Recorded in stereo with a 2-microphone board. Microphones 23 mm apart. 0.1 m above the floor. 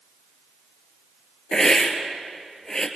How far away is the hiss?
About 2.5 m.